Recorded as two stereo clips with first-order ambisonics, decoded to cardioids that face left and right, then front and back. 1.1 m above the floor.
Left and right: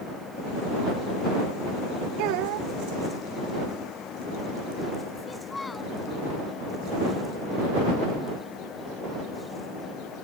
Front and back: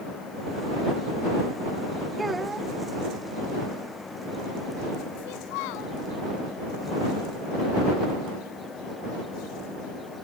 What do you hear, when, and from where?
2.2 s a child speaking: 100° right
5.2 s a child speaking: 10° left